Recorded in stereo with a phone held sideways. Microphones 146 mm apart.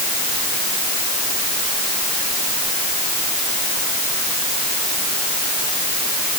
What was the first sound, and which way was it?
Only background noise.